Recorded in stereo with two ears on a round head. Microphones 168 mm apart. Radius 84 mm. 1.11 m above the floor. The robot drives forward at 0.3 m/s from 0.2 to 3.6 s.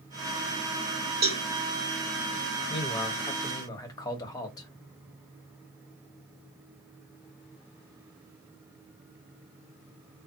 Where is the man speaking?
25° left (ahead or behind), 0.8 m; by 4.7 s 20° left (ahead or behind), 1.1 m.